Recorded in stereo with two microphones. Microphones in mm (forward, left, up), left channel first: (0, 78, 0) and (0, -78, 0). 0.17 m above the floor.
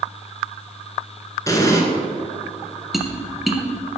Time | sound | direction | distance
1.5 | an explosion | 20° left (ahead or behind) | 1.5 m
2.9 | tapping | centre (ahead or behind) | 1.1 m